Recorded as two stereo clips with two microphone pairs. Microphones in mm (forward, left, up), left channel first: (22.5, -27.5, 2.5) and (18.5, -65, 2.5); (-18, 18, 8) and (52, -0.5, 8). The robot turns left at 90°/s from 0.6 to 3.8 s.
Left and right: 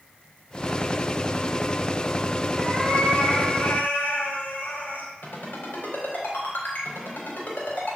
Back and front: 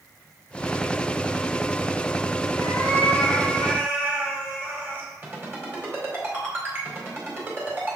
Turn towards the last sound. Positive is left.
turn(degrees=45)